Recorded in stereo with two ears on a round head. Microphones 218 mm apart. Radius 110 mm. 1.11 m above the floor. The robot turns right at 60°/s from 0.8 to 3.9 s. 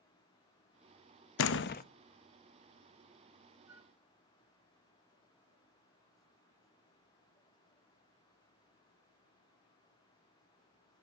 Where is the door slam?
60° left (ahead or behind), 0.8 m; by 1.8 s 35° left (ahead or behind), 0.8 m.